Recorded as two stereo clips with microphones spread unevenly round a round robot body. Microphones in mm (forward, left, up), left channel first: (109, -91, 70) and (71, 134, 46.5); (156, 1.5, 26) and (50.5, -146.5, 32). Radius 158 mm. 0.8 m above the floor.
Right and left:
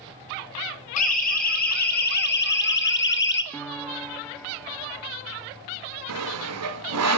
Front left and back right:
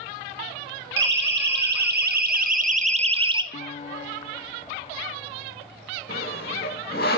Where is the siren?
140° right, 2 m; by 3.4 s 65° right, 1.3 m.